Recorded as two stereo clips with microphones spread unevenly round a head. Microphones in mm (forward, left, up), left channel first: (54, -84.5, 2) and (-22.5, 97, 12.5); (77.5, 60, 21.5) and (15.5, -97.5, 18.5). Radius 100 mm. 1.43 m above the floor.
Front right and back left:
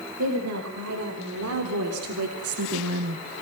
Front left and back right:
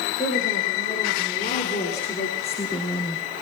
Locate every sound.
0.2 s a woman speaking: 125° left, 5.5 m; by 3.2 s 135° left, 1.5 m